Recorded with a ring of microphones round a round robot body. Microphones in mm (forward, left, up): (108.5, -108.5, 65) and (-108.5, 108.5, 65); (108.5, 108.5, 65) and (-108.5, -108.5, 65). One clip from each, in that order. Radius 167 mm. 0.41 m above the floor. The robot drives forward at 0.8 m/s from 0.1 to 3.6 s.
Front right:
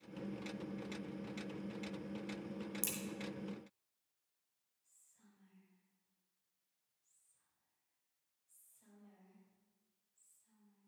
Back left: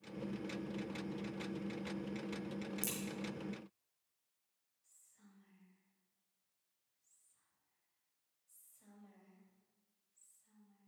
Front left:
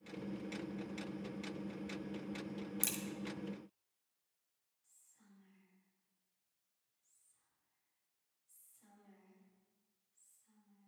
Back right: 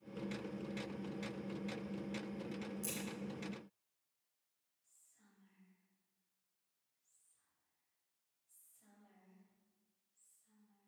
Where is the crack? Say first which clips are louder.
Front right 1 dB, front left 6 dB; 40° left, 1.7 m; by 3.0 s 45° left, 1.7 m.